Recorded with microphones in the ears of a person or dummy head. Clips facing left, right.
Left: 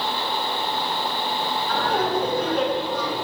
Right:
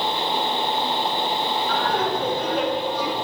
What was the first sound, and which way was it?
Laughter, 5° left (ahead or behind).